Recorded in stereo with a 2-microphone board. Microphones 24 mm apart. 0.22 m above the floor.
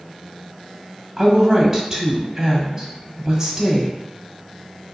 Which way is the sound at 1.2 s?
20° right (ahead or behind).